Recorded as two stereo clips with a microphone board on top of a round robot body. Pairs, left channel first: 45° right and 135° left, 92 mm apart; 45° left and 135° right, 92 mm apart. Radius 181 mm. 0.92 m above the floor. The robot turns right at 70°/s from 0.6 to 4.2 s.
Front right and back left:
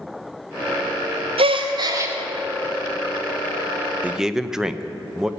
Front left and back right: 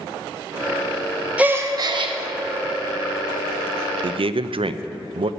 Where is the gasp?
150° left, 0.8 m; by 2.1 s 155° right, 0.8 m.